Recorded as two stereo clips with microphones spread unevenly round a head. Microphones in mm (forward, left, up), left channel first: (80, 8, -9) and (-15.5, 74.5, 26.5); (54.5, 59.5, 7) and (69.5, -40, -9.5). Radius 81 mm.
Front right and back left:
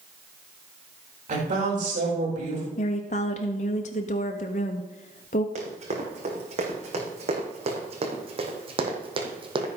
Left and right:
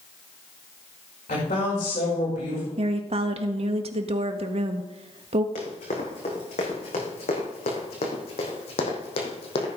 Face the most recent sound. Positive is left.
turn(degrees=115)